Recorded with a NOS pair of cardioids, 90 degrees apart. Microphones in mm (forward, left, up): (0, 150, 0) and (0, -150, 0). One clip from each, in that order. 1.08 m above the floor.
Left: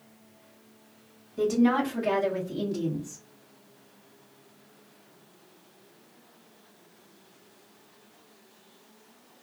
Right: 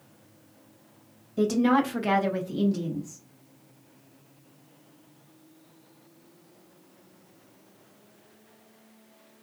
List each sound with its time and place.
1.4 s a woman speaking: 50° right, 1.2 m; by 3.2 s 30° left, 0.6 m